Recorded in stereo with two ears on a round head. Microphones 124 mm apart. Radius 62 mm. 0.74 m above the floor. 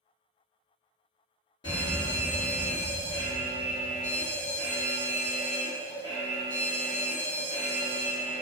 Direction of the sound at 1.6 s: 35° left (ahead or behind).